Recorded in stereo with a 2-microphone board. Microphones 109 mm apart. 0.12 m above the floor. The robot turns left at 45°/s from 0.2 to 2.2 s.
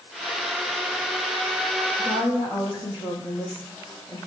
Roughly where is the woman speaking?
Left.